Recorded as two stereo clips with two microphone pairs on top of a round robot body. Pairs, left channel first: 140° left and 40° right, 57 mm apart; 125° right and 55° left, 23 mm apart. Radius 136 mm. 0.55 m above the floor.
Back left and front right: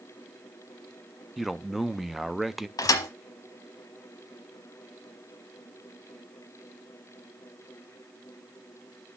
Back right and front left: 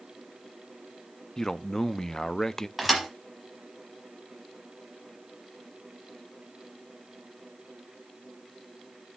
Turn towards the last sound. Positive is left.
turn(degrees=140)